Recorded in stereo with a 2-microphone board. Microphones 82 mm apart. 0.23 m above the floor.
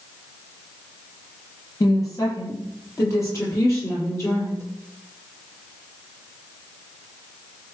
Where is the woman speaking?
40° left (ahead or behind), 7 m; by 4.7 s 30° left (ahead or behind), 7 m.